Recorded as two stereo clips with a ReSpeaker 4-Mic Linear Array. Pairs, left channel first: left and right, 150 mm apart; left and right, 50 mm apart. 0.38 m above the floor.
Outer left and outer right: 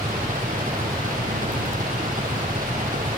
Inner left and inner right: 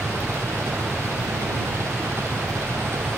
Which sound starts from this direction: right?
An engine running, at 0.0 s.